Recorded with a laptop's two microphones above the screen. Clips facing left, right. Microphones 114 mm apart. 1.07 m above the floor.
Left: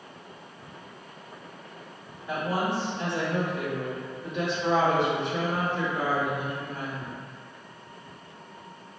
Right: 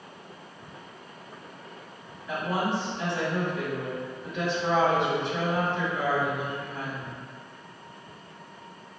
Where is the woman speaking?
30° left (ahead or behind), 1.8 m.